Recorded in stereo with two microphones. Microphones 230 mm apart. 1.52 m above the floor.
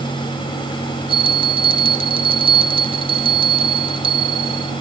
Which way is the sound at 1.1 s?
25° right (ahead or behind).